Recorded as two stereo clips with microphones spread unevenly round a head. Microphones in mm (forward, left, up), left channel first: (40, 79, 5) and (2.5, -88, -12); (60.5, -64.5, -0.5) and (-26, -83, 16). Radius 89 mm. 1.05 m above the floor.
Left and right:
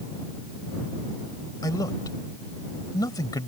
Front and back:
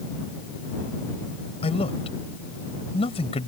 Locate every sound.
1.6 s a man speaking: 10° left